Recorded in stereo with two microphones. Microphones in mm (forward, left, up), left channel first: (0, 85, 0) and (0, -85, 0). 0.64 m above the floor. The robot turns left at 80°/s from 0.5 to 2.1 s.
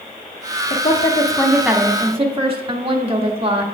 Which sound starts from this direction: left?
A woman speaking, at 0.7 s.